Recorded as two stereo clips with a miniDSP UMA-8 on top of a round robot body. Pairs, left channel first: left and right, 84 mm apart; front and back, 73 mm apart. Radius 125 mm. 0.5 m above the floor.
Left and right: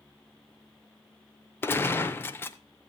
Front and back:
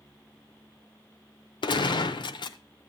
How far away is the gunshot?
About 0.6 m.